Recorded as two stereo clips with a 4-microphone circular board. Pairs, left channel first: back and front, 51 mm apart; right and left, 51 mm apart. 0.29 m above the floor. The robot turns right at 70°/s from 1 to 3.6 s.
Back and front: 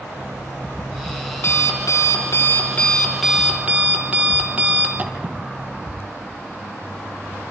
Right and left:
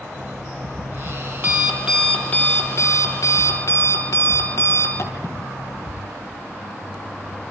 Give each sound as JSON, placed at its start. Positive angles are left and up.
{"t": 0.2, "sound": "an alarm clock", "azimuth_deg": 110, "distance_m": 4.0}